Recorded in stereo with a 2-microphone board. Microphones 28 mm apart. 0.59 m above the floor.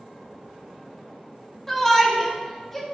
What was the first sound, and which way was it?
A shout, 5° left (ahead or behind).